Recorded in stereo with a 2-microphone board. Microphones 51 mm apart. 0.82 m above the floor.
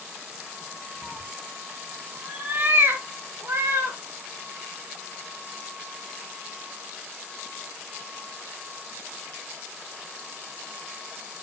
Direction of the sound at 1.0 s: 25° left (ahead or behind).